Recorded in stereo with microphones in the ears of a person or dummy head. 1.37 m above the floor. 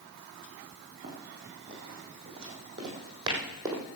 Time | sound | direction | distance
1.0 | running footsteps | 35° right (ahead or behind) | 5 m